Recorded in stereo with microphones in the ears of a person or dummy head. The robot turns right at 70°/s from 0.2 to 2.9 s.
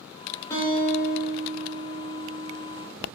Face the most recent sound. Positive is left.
turn(degrees=-175)